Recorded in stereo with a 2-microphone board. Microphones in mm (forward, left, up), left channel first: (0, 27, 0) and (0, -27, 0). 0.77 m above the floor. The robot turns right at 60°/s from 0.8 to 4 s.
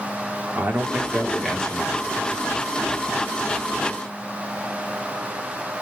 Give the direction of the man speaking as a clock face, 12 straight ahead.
1 o'clock.